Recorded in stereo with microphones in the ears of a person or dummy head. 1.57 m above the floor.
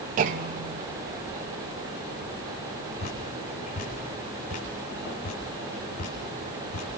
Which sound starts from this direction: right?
A clunk, at 0.2 s.